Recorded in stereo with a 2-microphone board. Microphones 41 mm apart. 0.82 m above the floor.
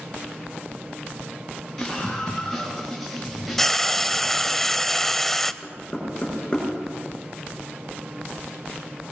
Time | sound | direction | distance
1.8 | a scream | 10° left (ahead or behind) | 6 m
3.6 | frying | 10° left (ahead or behind) | 0.7 m
5.6 | knocking | 20° left (ahead or behind) | 8 m